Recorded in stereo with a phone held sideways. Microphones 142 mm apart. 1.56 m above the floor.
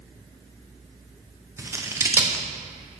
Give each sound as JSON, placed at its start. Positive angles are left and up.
{"t": 1.6, "sound": "scissors", "side_deg": -20, "distance_m": 0.8}